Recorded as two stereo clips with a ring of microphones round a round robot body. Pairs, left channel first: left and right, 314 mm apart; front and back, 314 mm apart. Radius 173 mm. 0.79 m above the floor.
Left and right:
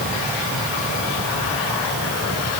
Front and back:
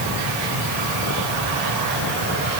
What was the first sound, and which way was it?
Only background noise.